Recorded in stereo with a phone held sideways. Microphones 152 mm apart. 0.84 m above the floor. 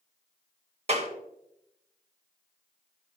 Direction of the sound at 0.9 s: 45° right (ahead or behind).